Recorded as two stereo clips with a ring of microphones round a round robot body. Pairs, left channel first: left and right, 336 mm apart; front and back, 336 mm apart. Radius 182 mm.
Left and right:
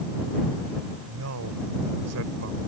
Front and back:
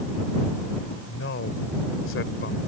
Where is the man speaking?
50° right.